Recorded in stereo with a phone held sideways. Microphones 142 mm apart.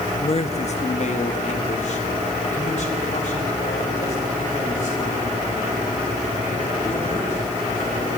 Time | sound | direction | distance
0.2 | a man speaking | 45° left (ahead or behind) | 1.0 m